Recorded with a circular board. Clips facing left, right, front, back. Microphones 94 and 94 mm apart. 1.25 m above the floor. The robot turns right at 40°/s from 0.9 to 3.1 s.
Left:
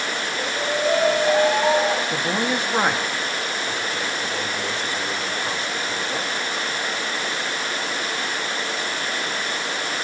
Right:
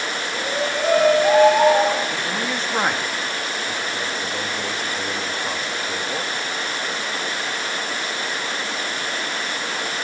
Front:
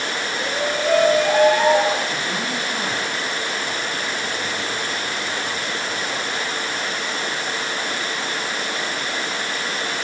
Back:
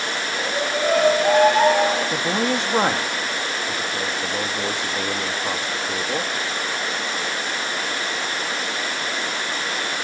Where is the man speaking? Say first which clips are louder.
Left 2 dB, back 4 dB; 145° left, 1.6 m; by 6.3 s 175° right, 1.6 m.